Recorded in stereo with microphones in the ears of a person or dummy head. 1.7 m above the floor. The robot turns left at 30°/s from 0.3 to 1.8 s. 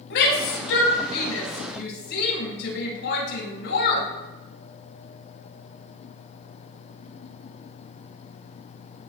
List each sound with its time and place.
0.1 s a shout: 70° left (ahead or behind), 7 m; by 4.1 s 65° left (ahead or behind), 7 m